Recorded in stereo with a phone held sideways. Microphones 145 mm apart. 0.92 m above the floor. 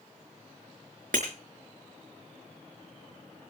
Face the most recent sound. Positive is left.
turn(degrees=-70)  # may be behind; listen again after turning